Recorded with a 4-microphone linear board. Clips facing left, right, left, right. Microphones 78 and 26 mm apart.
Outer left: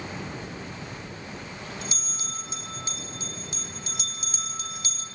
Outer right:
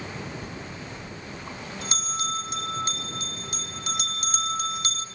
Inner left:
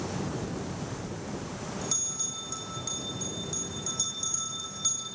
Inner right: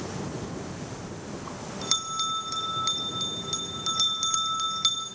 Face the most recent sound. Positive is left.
turn(degrees=-60)  # may be behind; listen again after turning